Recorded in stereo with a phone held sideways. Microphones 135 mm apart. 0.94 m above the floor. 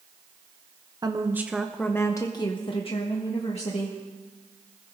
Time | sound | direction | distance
1.0 | a woman speaking | 30° right (ahead or behind) | 0.9 m